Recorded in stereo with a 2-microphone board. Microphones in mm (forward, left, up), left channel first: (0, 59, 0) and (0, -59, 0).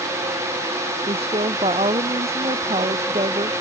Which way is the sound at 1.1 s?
60° right (ahead or behind).